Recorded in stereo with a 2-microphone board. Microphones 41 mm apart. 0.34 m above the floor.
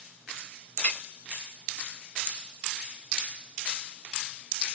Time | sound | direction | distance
0.8 | a clink | 40° left (ahead or behind) | 1.1 m